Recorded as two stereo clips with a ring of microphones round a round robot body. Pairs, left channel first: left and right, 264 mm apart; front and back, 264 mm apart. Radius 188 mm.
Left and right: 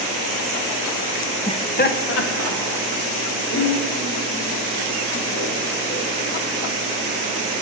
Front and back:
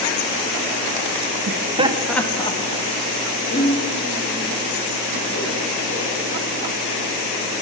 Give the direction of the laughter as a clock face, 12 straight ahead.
7 o'clock.